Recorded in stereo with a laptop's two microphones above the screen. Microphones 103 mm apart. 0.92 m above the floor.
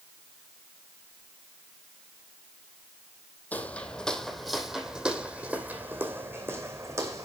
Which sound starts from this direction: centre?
Footsteps, at 3.5 s.